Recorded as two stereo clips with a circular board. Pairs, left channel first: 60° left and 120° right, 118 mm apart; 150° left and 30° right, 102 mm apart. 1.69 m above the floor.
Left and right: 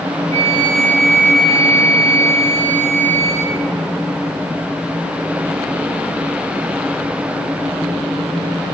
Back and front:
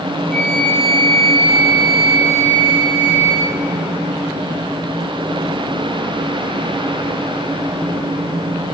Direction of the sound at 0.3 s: 115° right.